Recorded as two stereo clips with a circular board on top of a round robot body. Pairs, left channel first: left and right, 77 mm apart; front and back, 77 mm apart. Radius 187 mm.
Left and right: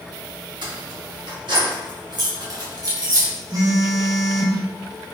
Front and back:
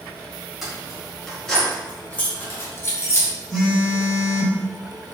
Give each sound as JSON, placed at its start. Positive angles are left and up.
{"t": 0.6, "sound": "keys jangling", "azimuth_deg": -90, "distance_m": 2.0}
{"t": 3.5, "sound": "a phone buzzing", "azimuth_deg": -85, "distance_m": 2.0}